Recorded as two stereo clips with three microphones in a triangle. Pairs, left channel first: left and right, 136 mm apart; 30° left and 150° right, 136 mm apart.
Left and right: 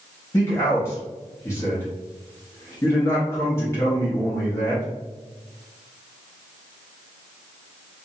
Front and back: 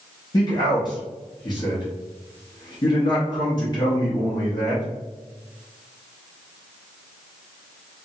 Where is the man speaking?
40° left, 0.7 m.